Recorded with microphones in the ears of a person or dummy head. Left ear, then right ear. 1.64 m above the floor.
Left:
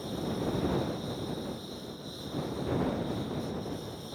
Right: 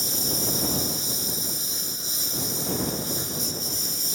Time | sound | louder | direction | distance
0.0 | a lawn mower | right 8 dB | 65° right (ahead or behind) | ?